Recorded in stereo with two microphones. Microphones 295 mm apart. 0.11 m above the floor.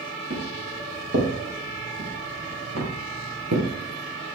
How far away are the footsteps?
About 6.5 m.